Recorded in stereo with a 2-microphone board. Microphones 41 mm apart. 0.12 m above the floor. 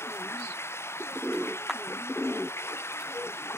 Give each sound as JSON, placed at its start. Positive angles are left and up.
{"t": 0.0, "sound": "running water", "side_deg": 85}
{"t": 1.7, "sound": "a clap", "side_deg": 0}